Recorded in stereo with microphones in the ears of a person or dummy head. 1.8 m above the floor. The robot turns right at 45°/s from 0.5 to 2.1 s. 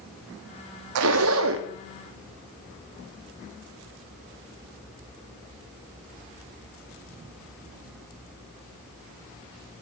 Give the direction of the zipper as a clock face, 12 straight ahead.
3 o'clock.